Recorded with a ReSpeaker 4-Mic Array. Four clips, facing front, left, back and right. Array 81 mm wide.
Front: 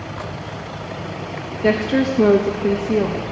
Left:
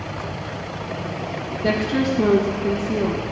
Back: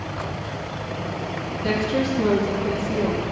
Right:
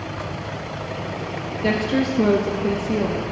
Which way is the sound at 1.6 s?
15° right.